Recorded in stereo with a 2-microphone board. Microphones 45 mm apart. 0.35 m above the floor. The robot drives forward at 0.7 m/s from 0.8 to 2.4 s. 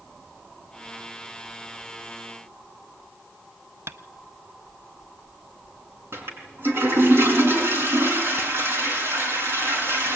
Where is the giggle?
I don't hear a giggle.